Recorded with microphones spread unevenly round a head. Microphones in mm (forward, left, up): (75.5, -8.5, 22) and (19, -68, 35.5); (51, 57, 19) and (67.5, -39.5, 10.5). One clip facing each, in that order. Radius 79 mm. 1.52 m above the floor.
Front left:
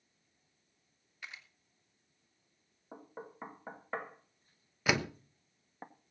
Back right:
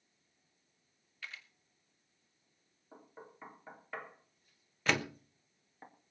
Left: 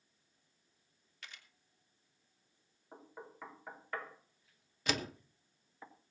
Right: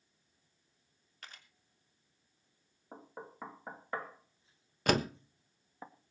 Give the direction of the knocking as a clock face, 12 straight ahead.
12 o'clock.